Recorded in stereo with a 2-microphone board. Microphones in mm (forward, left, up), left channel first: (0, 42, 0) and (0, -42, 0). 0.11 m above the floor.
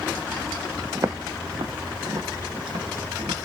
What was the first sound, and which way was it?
Footsteps, 30° right (ahead or behind).